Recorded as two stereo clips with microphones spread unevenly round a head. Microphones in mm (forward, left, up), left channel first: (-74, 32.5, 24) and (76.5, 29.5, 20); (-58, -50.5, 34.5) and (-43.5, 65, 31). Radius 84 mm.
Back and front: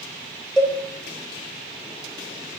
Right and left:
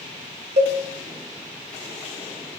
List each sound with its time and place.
0.6 s a cowbell: 90° left, 1.0 m